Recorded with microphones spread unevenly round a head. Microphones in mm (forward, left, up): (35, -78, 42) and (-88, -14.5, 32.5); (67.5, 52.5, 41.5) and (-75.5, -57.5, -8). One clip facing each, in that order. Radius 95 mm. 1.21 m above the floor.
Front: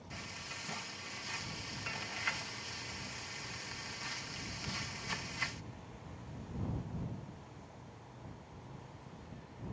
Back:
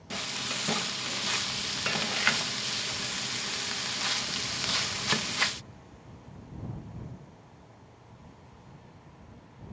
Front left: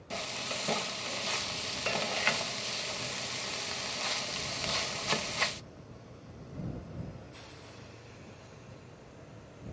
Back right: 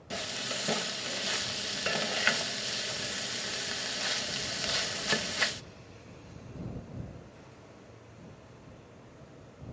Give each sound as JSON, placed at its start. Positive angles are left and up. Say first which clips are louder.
{"t": 0.1, "sound": "frying", "louder": "back 13 dB, back right 1 dB", "azimuth_deg": 135}